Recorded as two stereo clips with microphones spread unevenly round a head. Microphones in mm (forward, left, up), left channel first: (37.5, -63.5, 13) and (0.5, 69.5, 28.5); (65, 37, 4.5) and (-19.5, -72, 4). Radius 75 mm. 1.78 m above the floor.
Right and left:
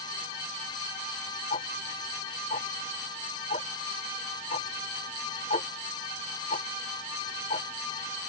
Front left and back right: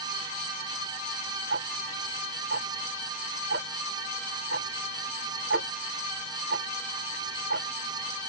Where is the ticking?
135° right.